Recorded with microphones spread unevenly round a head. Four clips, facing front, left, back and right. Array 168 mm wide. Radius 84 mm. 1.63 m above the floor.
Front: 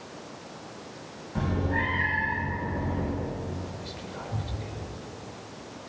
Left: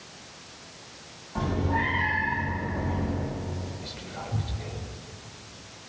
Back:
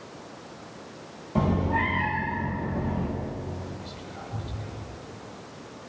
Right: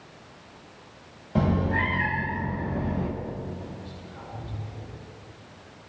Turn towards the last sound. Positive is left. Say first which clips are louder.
# left 3 dB, front 1 dB
turn(degrees=45)